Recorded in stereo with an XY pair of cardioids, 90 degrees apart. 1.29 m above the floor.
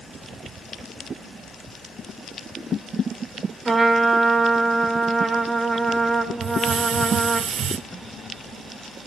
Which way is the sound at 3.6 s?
20° right.